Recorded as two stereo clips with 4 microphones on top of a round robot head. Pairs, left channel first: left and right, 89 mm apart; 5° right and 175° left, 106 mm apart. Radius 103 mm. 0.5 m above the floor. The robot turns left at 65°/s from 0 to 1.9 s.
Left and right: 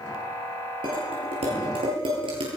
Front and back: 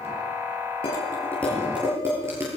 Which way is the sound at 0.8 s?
45° right.